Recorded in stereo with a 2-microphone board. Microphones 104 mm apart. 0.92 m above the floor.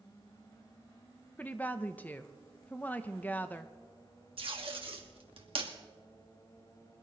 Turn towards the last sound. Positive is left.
turn(degrees=-60)  # may be behind; listen again after turning